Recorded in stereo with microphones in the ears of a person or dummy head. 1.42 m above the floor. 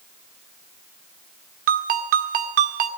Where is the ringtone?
50° right (ahead or behind), 1.7 m.